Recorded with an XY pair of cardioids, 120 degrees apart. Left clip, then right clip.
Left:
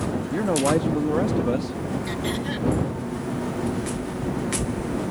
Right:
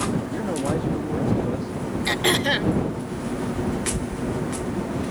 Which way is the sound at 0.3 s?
35° left.